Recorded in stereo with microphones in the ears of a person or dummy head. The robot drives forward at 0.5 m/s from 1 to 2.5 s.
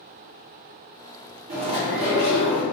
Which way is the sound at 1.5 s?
50° right (ahead or behind).